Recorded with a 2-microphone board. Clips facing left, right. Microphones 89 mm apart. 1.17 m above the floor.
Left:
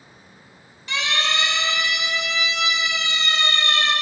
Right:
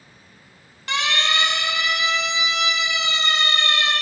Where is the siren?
65° right (ahead or behind), 2 m; by 3.9 s 30° right (ahead or behind), 4 m.